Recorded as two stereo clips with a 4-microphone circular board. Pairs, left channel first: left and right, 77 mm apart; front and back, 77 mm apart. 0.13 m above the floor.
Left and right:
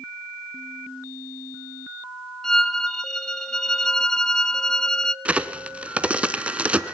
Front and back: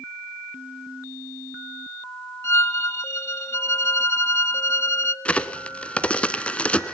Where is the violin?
10° left, 0.7 m.